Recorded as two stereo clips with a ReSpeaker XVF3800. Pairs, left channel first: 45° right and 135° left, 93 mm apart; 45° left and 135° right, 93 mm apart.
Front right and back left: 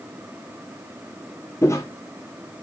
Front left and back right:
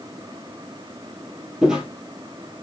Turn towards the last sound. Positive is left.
turn(degrees=-55)